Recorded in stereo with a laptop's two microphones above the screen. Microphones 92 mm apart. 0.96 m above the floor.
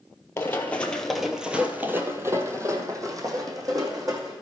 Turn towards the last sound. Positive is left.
turn(degrees=-40)  # may be behind; listen again after turning